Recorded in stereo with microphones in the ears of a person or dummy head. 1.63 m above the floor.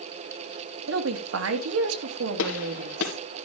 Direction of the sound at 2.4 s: 70° left (ahead or behind).